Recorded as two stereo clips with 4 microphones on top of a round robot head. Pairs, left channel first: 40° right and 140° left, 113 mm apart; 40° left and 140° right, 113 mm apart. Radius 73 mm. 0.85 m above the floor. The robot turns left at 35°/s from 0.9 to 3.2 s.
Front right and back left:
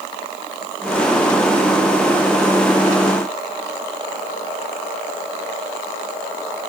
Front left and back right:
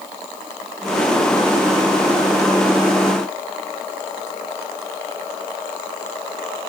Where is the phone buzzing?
I don't hear a phone buzzing.